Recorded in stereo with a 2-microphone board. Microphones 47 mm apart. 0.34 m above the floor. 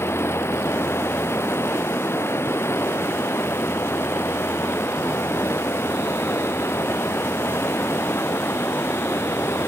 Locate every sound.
0.0 s running water: 65° left (ahead or behind)